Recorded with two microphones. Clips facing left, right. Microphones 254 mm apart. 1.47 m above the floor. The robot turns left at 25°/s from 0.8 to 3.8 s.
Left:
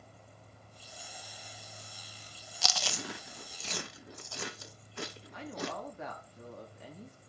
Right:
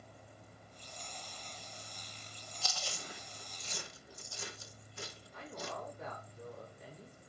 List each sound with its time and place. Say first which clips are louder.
2.6 s chewing: left 7 dB; 80° left, 0.8 m; by 5.7 s 70° left (ahead or behind), 0.8 m
5.3 s a woman speaking: left 6 dB; 90° left, 3.5 m